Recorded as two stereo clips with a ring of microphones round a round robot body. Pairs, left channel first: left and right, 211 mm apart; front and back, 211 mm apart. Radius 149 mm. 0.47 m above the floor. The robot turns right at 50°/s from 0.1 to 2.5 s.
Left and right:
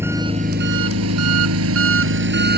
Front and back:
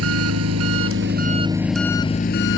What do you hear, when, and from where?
0.0 s an engine running: 170° right; by 2.6 s 50° right